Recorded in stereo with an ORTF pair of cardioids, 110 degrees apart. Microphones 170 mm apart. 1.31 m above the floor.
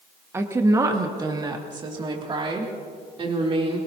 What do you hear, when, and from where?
0.3 s a woman speaking: 15° right, 1.3 m; by 3.8 s 35° right, 3.5 m